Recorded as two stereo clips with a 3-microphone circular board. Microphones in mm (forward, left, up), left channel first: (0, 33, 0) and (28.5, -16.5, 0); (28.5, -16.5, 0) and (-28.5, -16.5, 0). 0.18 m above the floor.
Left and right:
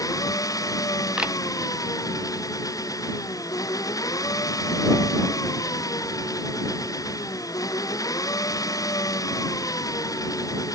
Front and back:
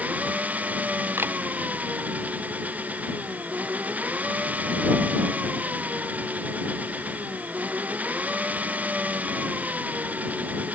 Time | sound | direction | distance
0.0 | an engine running | 115° left | ?
1.2 | a camera shutter | 135° right | ?